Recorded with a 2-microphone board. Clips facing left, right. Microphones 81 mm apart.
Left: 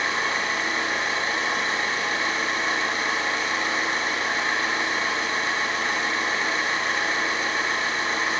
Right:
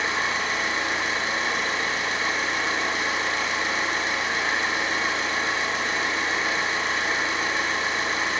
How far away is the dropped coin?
No dropped coin in this recording.